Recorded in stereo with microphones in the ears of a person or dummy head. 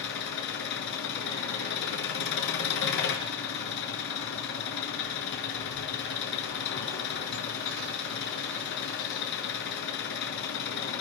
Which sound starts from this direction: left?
An engine running, at 0.0 s.